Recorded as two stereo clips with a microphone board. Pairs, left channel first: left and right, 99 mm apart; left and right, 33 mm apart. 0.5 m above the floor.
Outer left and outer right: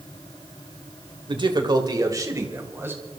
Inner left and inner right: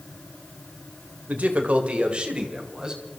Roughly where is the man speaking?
Right.